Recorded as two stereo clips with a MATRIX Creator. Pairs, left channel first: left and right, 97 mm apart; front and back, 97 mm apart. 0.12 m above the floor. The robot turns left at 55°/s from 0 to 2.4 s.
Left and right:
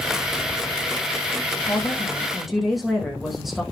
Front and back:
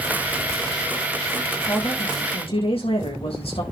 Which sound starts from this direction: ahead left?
A woman speaking, at 1.6 s.